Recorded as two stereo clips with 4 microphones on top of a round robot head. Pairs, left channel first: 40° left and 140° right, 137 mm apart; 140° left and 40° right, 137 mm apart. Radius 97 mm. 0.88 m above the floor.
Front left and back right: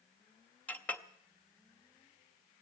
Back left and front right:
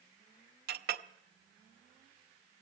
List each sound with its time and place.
0.7 s a clink: 40° right, 0.6 m